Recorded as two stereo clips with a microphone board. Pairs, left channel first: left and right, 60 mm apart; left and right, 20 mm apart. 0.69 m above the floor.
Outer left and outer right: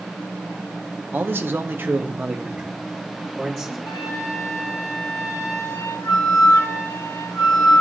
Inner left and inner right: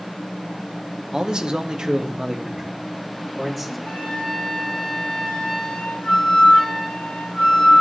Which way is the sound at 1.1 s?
35° right (ahead or behind).